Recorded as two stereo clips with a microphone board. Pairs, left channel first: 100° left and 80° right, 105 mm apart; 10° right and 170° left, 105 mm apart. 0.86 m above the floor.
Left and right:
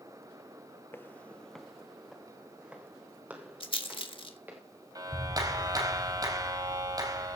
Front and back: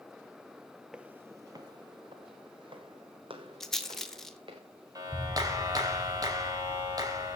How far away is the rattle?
About 2 m.